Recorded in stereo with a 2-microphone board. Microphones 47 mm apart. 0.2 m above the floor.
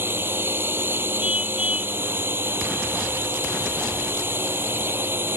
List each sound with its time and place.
0.0 s a drone: 60° right (ahead or behind)
1.2 s a car horn: 30° right (ahead or behind)